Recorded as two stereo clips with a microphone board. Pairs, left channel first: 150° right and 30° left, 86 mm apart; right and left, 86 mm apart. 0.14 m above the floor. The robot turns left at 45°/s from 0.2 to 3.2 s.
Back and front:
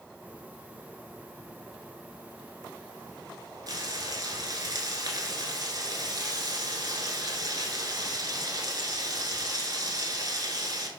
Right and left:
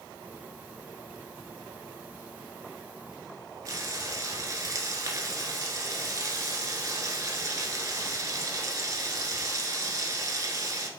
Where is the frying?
50° left, 0.6 m.